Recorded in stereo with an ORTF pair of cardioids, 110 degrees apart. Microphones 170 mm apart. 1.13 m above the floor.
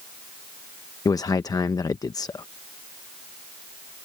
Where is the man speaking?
20° left.